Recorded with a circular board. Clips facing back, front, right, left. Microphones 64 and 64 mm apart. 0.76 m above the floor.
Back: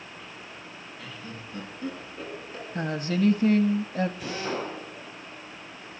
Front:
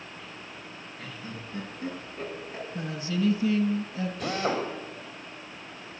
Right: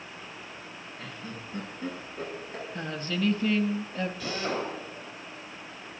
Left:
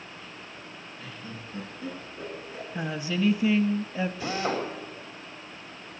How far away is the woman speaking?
About 0.8 m.